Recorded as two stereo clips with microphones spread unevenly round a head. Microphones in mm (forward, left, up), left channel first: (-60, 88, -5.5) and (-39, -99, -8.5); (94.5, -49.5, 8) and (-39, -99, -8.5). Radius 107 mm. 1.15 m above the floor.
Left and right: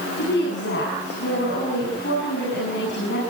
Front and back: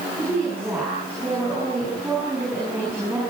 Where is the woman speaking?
120° left, 9.5 m.